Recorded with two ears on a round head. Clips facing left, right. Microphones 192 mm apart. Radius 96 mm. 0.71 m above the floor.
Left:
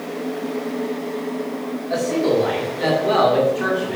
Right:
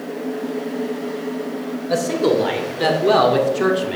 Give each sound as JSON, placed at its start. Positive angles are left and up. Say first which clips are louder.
{"t": 1.9, "sound": "a man speaking", "louder": "right 1 dB", "side_deg": -70, "distance_m": 3.5}